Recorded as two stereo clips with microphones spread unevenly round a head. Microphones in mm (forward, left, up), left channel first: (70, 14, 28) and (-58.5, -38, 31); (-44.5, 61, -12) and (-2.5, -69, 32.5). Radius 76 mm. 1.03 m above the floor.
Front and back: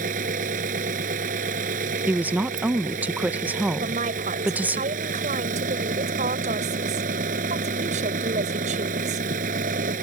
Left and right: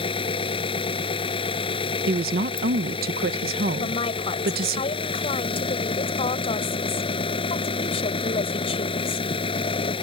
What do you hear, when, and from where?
0.0 s an engine running: 165° left
2.1 s a woman speaking: 80° right
3.8 s a woman speaking: 160° left